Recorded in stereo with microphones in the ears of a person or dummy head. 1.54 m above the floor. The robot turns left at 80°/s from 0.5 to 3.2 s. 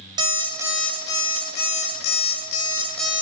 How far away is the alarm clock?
About 1.2 m.